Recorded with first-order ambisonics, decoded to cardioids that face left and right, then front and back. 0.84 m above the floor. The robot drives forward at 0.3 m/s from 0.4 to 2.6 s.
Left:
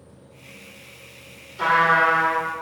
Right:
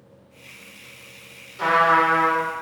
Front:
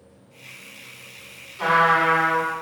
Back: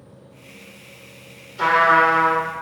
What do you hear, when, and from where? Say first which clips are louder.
1.6 s a trumpet: even, back 3 dB; 170° left, 0.9 m; by 2.4 s 175° left, 1.1 m